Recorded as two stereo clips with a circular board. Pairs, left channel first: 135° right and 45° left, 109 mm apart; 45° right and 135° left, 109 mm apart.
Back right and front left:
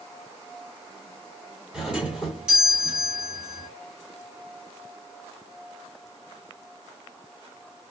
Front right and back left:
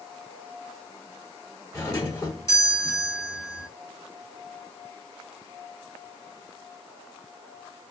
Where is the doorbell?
25° right, 1.4 m.